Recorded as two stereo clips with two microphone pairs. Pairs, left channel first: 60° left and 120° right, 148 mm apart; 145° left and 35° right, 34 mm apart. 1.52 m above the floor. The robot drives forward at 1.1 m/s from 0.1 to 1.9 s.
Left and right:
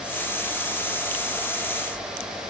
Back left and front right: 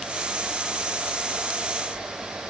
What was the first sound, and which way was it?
Only background noise.